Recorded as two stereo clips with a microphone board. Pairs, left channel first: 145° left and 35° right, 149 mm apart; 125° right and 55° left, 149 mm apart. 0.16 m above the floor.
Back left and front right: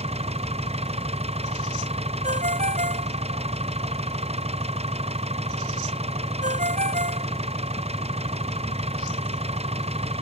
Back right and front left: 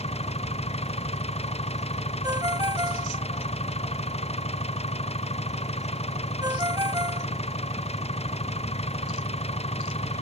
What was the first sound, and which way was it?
An engine running, 80° right.